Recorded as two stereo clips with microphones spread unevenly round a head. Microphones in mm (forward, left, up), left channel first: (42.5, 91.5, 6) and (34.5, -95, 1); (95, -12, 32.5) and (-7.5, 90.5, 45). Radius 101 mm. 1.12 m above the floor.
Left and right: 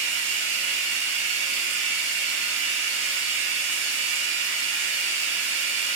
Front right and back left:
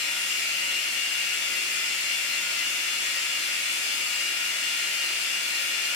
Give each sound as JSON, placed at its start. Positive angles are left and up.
{"t": 0.0, "sound": "running water", "azimuth_deg": -75, "distance_m": 1.0}